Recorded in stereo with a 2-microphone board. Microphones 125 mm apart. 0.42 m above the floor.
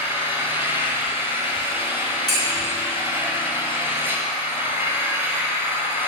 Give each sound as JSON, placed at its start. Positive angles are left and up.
{"t": 0.0, "sound": "an engine running", "side_deg": -20, "distance_m": 2.0}
{"t": 2.3, "sound": "dishes clattering", "side_deg": 0, "distance_m": 3.0}